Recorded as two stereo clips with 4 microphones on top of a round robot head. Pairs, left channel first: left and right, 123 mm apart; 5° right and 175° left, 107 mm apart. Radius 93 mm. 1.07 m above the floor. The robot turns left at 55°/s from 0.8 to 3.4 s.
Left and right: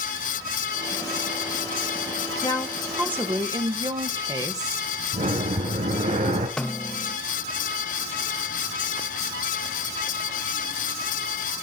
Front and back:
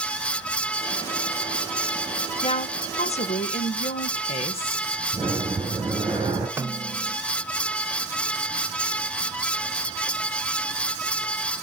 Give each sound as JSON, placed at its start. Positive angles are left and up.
{"t": 2.4, "sound": "a woman speaking", "azimuth_deg": 25, "distance_m": 0.9}
{"t": 5.1, "sound": "breathing", "azimuth_deg": -115, "distance_m": 3.5}
{"t": 6.6, "sound": "a snare drum", "azimuth_deg": 165, "distance_m": 0.8}